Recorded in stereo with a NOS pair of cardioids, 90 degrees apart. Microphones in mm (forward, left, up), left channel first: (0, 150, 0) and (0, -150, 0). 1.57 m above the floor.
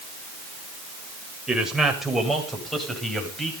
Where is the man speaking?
Straight ahead, 7 m.